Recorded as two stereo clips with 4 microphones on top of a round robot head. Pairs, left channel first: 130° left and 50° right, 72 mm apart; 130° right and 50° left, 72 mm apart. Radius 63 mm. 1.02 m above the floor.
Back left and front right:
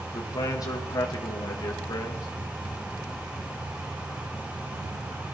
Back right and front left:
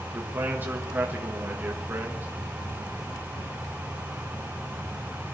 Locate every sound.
0.1 s a man speaking: 110° left, 1.5 m